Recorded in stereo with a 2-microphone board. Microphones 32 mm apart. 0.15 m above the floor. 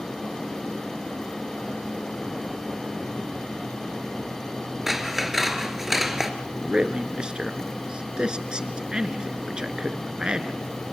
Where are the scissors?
15° right (ahead or behind), 2.0 m.